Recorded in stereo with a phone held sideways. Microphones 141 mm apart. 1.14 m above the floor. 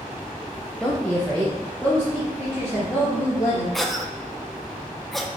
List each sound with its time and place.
0.8 s a woman speaking: 5° left (ahead or behind), 0.5 m
3.7 s a cough: centre (ahead or behind), 0.7 m